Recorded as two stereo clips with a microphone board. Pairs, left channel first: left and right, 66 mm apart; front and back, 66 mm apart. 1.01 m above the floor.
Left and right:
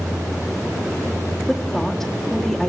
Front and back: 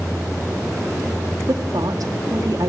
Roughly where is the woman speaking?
Behind.